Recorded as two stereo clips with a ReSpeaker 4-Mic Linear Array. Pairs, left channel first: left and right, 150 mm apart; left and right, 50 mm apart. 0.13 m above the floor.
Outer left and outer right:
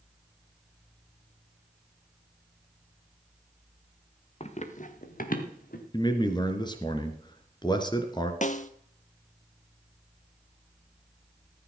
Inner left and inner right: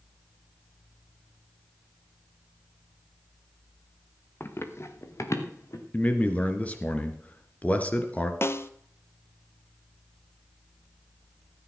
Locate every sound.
4.4 s running footsteps: 45° left (ahead or behind), 1.7 m; by 5.8 s 70° left (ahead or behind), 3 m
5.9 s a man speaking: 30° left (ahead or behind), 2 m
8.4 s a snare drum: 55° left (ahead or behind), 0.8 m